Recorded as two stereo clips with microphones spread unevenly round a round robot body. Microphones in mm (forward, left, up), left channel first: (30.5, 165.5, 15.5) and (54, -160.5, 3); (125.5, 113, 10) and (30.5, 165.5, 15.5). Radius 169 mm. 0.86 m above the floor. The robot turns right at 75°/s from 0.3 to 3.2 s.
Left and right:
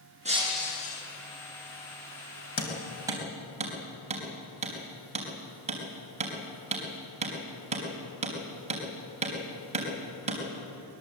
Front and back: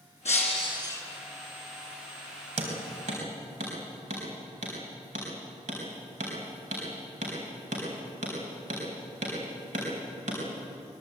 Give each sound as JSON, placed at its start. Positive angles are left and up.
{"t": 0.2, "sound": "breaking glass", "azimuth_deg": -15, "distance_m": 6.5}
{"t": 2.6, "sound": "hammering", "azimuth_deg": 155, "distance_m": 4.0}